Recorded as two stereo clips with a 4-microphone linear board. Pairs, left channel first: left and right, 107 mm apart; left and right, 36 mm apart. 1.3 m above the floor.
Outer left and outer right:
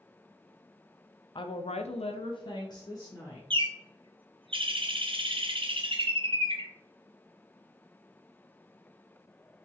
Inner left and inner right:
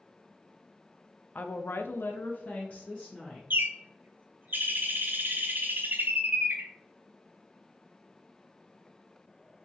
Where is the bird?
55° right (ahead or behind), 0.7 m.